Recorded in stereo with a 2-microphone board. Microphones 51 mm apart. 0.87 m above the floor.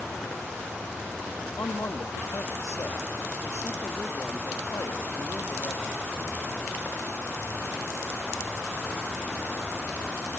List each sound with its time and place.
1.6 s a man speaking: 60° left (ahead or behind), 1.0 m